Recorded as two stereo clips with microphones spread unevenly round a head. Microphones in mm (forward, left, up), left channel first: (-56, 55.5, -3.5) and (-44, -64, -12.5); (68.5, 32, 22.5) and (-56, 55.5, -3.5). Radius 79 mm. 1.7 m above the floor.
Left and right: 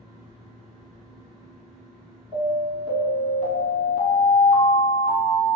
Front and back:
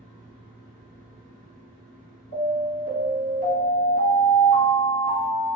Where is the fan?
5° right, 1.6 m.